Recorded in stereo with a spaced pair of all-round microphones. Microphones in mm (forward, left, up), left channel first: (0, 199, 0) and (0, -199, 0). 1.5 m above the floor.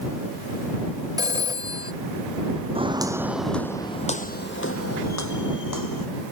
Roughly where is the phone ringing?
Centre.